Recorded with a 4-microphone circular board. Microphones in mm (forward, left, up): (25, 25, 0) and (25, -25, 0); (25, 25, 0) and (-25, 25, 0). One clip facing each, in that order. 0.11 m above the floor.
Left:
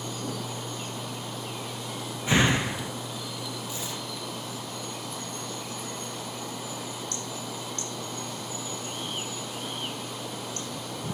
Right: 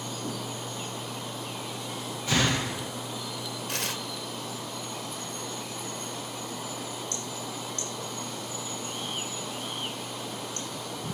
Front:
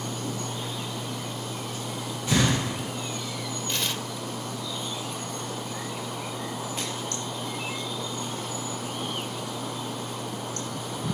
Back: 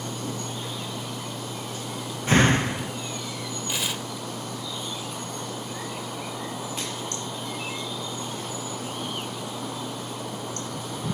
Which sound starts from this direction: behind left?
A door slam, at 2.3 s.